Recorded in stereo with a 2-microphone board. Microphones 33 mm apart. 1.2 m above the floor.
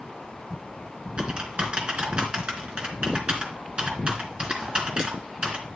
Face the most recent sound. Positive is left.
turn(degrees=-35)  # may be behind; listen again after turning